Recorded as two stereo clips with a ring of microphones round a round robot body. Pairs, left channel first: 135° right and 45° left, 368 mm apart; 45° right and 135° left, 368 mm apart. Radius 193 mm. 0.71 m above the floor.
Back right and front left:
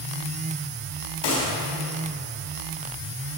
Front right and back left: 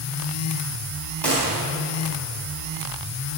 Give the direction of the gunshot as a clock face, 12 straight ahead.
4 o'clock.